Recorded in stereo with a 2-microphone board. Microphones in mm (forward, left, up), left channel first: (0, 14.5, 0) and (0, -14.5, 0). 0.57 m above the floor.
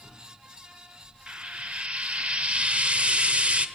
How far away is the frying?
About 1.6 m.